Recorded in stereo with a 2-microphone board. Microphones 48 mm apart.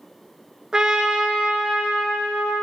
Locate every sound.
0.7 s a trumpet: 15° right (ahead or behind), 0.7 m